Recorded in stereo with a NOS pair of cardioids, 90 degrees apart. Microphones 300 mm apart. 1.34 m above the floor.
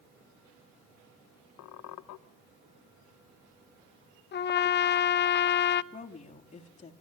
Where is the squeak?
70° left, 1.0 m.